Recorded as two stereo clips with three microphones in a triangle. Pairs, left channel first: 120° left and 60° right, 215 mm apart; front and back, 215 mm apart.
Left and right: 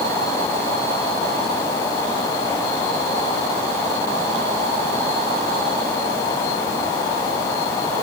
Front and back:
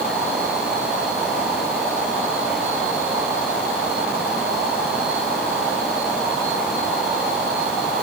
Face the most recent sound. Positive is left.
No sound to turn to.